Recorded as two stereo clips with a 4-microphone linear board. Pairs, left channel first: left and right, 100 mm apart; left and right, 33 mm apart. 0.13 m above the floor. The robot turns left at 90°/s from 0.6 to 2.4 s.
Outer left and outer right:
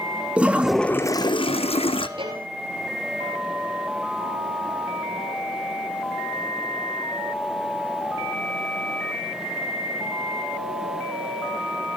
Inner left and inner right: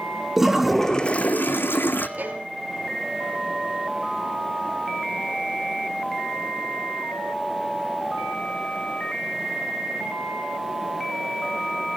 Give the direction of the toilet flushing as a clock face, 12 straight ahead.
6 o'clock.